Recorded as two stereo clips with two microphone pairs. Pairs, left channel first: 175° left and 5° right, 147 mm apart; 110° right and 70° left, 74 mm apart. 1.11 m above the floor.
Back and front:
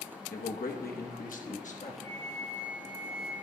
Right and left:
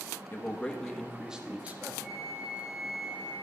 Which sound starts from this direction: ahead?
A flute, at 2.0 s.